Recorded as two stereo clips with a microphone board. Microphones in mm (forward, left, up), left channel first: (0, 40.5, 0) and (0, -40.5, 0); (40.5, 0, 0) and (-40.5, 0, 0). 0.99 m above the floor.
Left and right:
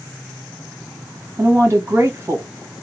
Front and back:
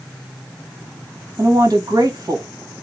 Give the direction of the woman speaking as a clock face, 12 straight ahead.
5 o'clock.